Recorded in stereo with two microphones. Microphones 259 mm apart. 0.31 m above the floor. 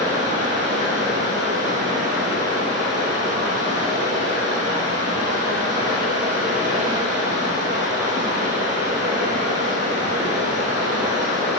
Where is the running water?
30° right (ahead or behind), 2.5 m.